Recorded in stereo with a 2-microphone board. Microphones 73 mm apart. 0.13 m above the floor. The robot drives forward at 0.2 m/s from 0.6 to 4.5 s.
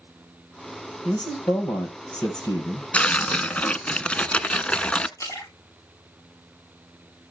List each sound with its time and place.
1.1 s a man speaking: 65° left (ahead or behind), 3 m; by 2.8 s 70° left (ahead or behind), 3 m
2.9 s tearing paper: 15° left (ahead or behind), 0.6 m
5.2 s a splash: 45° left (ahead or behind), 7 m